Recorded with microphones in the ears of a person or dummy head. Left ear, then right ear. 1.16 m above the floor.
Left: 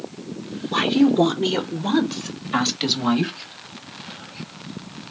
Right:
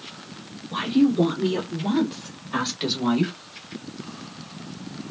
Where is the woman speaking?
60° left (ahead or behind), 1.0 m; by 3.3 s 10° left (ahead or behind), 1.8 m.